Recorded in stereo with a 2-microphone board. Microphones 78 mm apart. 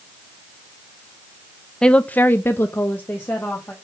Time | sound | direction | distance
1.8 | a woman speaking | 10° left (ahead or behind) | 0.7 m